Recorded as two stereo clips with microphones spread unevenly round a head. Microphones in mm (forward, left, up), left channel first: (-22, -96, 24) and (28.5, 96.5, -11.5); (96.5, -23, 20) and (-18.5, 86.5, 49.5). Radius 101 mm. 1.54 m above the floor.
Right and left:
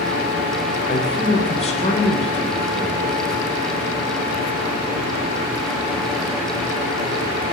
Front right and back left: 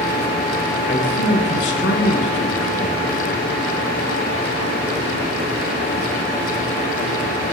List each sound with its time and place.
0.9 s a man speaking: 45° right, 1.6 m